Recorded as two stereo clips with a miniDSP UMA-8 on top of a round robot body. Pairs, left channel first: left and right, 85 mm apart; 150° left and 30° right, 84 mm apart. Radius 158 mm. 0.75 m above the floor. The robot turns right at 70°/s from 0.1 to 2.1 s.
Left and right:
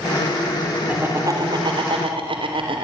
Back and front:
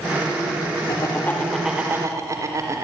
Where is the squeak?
I don't hear a squeak.